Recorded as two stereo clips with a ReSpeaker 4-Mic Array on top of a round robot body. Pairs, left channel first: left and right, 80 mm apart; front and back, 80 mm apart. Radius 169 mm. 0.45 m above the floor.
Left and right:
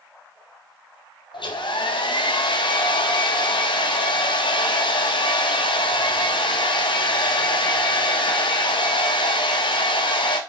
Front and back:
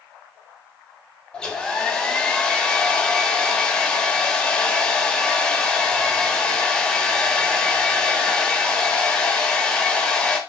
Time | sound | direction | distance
1.3 | a hair dryer | 80° left | 1.4 m